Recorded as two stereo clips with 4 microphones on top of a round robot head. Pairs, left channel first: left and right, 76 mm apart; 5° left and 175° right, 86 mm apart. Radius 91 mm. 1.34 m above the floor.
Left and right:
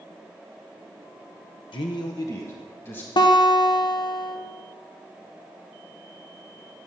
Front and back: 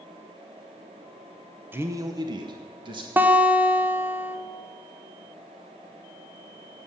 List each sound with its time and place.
1.7 s a man speaking: 115° left, 0.6 m; by 3.1 s 155° left, 1.6 m
3.2 s a guitar: 115° left, 1.0 m